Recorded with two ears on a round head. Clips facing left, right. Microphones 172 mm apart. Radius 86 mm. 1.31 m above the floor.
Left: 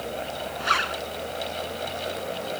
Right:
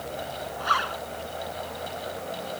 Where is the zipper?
25° left (ahead or behind).